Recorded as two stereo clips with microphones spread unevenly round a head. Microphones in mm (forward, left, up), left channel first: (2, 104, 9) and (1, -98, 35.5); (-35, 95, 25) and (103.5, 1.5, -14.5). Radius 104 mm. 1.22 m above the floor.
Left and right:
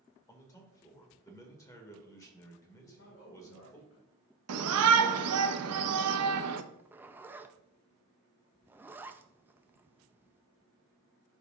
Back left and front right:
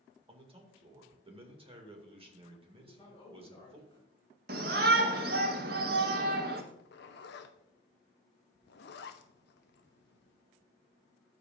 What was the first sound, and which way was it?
A man speaking, 15° left.